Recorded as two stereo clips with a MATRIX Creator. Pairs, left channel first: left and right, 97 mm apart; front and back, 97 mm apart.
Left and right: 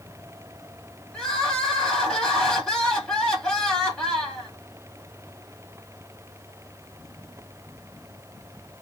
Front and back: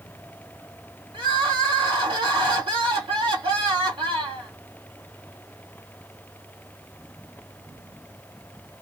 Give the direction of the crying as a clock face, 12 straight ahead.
6 o'clock.